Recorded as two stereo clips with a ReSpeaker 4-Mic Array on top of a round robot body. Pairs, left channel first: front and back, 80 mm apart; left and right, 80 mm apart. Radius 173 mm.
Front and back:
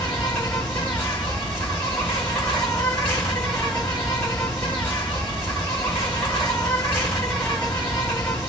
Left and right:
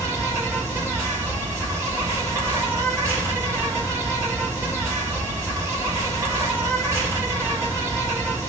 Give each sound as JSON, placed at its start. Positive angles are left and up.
{"t": 0.0, "sound": "an insect", "azimuth_deg": -60, "distance_m": 2.0}